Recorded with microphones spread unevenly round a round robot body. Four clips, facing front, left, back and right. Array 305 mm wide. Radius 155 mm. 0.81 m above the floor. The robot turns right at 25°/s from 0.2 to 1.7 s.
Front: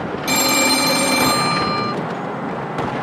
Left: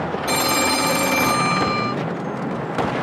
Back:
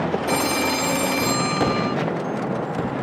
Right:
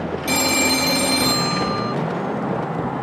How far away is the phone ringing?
About 1.1 m.